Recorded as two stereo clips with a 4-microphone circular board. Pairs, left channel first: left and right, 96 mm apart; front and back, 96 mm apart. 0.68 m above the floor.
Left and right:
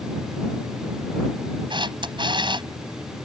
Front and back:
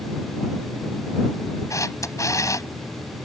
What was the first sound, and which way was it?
A camera shutter, 55° right.